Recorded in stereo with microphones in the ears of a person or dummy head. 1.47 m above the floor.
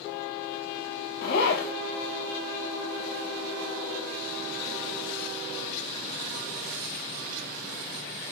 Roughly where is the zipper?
Left.